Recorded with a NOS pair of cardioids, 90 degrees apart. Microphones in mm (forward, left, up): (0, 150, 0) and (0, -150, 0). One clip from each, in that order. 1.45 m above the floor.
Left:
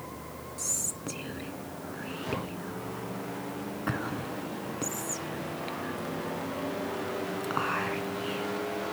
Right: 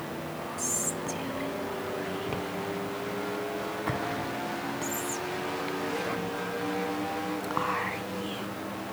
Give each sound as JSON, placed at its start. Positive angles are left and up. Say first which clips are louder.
{"t": 0.6, "sound": "whispering", "louder": "right 1 dB", "azimuth_deg": 0, "distance_m": 1.0}